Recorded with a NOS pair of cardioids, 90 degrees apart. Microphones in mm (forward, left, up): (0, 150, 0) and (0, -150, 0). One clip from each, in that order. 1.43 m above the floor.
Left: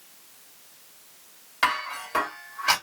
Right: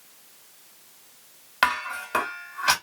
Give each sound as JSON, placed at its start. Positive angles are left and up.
{"t": 1.6, "sound": "dishes clattering", "azimuth_deg": -55, "distance_m": 1.7}